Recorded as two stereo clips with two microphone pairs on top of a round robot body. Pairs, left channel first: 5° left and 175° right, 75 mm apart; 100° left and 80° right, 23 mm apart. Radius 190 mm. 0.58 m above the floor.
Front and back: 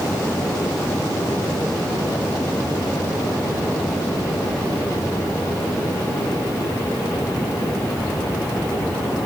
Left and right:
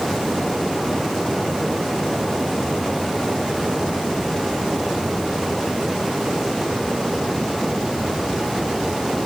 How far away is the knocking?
No knocking in this recording.